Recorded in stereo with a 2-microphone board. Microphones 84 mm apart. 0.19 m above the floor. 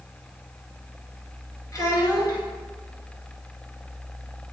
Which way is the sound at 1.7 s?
40° left (ahead or behind).